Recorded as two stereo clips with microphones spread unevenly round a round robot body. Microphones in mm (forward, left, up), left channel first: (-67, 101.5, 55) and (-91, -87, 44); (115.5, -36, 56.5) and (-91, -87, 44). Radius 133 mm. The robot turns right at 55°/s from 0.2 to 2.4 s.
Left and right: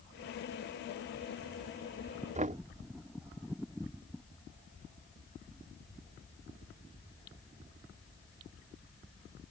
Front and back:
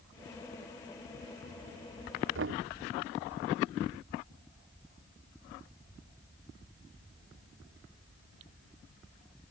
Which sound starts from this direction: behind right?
Knocking, at 2.4 s.